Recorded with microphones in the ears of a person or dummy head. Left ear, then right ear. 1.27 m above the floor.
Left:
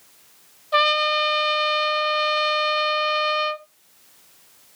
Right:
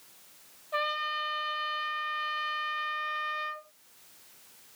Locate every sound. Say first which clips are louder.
0.7 s a trumpet: left 12 dB; 35° left (ahead or behind), 0.6 m